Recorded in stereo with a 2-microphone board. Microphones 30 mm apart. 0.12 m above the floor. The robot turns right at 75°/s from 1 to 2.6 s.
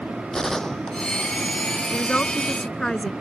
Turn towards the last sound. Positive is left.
turn(degrees=20)  # may be behind; listen again after turning